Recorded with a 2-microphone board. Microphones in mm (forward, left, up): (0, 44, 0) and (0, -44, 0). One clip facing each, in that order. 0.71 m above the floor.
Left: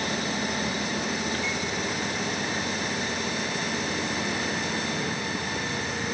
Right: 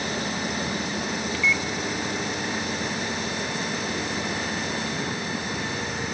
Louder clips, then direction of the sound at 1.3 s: Right 4 dB; 40° left (ahead or behind).